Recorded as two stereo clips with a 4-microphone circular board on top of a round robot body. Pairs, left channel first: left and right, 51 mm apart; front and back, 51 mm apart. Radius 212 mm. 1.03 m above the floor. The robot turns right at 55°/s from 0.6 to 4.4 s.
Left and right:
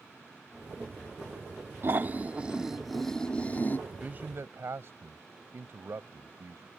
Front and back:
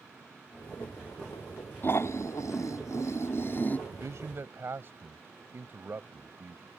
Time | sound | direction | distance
1.8 | snoring | 55° right | ?
3.9 | a man speaking | 160° right | ?